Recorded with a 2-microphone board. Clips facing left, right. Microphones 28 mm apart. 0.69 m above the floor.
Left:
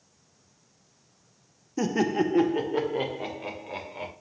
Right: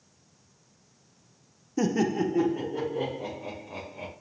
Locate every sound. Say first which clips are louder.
1.8 s laughter: left 1 dB; centre (ahead or behind), 0.5 m; by 4.1 s 70° left (ahead or behind), 2.0 m